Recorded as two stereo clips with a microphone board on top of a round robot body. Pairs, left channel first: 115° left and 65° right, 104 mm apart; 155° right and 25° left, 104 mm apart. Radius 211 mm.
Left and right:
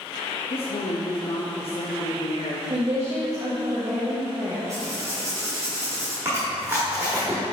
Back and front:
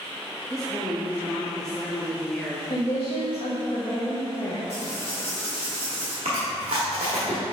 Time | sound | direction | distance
0.5 | a woman speaking | 115° left | 0.8 m
2.7 | a woman speaking | 125° right | 0.8 m
4.7 | writing | 130° right | 0.5 m
6.2 | chewing | 5° right | 0.7 m